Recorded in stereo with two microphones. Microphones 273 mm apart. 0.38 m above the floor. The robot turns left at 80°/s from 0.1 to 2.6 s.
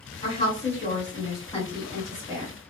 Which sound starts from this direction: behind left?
A woman speaking, at 0.2 s.